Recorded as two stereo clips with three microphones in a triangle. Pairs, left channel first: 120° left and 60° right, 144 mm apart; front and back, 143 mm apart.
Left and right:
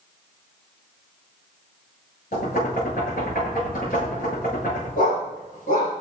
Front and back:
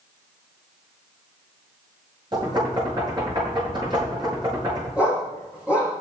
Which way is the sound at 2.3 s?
120° left.